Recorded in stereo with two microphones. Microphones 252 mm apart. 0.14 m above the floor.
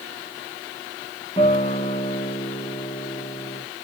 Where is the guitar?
25° left (ahead or behind), 8 m.